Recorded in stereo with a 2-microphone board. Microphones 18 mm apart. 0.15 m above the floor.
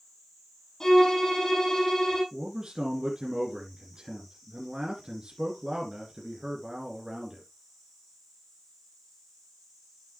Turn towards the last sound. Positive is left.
turn(degrees=-40)  # may be behind; listen again after turning